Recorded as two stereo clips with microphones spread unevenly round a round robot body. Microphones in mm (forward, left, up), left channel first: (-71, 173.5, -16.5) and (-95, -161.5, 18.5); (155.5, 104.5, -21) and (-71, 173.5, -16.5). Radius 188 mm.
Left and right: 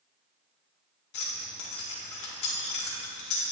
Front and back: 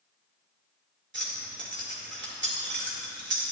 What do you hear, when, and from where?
1.1 s keys jangling: 120° left, 1.9 m